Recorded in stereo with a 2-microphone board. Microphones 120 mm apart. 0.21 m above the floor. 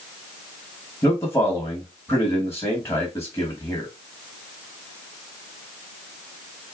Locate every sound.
1.0 s a man speaking: 20° left (ahead or behind), 1.4 m